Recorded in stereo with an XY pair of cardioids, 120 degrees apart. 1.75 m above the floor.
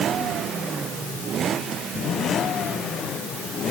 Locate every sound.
Only background noise.